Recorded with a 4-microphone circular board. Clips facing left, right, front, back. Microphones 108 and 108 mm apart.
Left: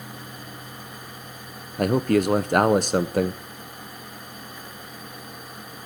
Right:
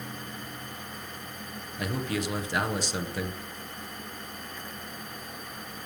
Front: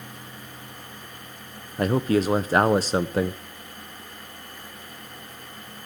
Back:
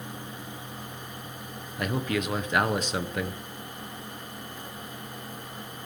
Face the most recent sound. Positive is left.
turn(degrees=55)